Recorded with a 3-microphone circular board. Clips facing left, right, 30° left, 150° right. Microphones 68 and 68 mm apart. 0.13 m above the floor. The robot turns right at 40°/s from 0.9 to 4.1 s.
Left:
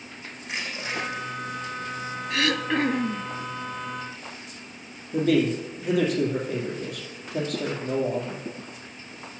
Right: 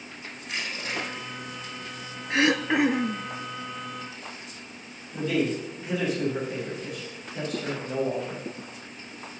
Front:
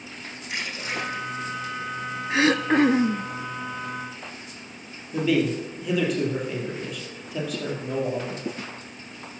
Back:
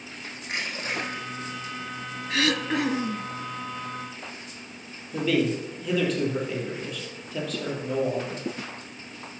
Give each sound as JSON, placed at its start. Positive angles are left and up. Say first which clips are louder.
{"t": 0.4, "sound": "crushing", "louder": "left 1 dB, back 1 dB", "azimuth_deg": 160, "distance_m": 4.5}
{"t": 2.3, "sound": "throat clearing", "louder": "right 3 dB, front 5 dB", "azimuth_deg": -35, "distance_m": 0.5}
{"t": 5.1, "sound": "a man speaking", "louder": "left 5 dB, front 2 dB", "azimuth_deg": 115, "distance_m": 3.0}